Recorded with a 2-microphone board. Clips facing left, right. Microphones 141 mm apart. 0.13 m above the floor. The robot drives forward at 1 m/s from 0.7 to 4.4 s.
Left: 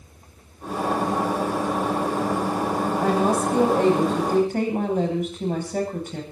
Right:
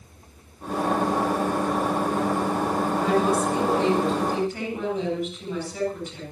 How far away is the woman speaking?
About 9.5 m.